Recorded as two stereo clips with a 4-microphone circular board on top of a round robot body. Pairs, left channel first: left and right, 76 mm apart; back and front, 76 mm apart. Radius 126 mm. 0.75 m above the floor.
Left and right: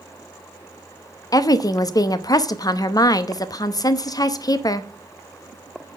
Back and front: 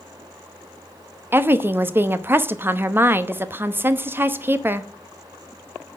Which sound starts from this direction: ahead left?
A woman speaking, at 1.3 s.